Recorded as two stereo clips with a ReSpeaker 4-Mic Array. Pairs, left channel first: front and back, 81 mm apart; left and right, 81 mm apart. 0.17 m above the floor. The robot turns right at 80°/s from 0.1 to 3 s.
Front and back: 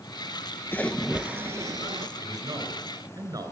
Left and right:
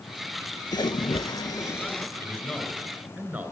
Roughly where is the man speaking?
Behind left.